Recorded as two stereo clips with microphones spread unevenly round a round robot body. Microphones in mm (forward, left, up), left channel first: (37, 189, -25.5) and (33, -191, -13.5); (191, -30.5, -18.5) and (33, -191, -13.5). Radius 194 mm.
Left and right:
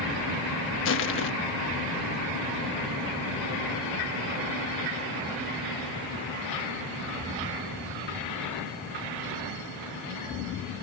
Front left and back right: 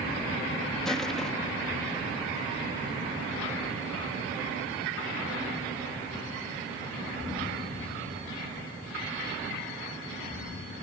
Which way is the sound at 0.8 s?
130° left.